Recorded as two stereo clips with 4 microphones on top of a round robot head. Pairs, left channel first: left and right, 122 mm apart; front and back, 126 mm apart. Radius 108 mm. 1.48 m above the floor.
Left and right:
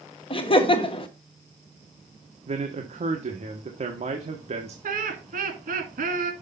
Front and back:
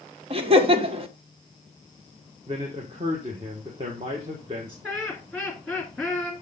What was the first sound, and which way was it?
Laughter, 135° left.